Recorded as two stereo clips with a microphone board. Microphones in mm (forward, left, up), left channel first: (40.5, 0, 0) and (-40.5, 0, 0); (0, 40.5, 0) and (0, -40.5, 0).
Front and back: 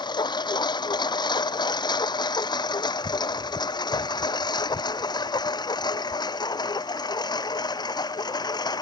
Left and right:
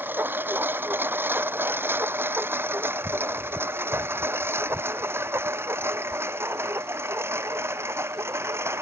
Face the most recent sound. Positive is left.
turn(degrees=-30)